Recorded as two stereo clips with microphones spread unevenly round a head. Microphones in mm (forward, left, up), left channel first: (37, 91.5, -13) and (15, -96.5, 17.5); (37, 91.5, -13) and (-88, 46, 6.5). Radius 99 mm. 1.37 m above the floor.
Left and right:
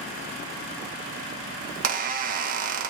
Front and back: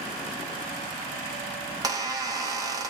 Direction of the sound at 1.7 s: 110° right.